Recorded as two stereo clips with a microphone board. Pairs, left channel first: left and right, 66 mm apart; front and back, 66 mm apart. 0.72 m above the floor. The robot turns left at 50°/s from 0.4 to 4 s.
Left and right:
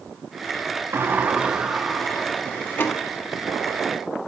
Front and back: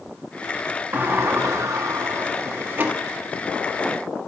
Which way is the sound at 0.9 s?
135° right.